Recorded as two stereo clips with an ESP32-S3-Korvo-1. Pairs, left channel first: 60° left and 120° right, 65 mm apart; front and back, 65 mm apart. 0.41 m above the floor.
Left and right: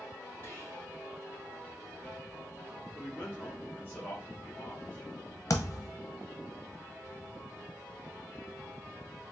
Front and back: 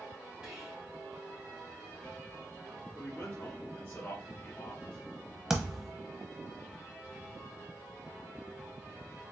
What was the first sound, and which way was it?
Whispering, 105° left.